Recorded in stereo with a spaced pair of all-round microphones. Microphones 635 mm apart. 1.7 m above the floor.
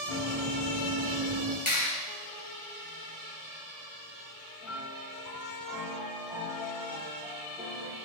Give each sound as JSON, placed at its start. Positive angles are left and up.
{"t": 0.1, "sound": "running footsteps", "side_deg": -50, "distance_m": 3.0}
{"t": 1.7, "sound": "a clap", "side_deg": 45, "distance_m": 1.7}
{"t": 4.6, "sound": "a piano", "side_deg": -5, "distance_m": 2.0}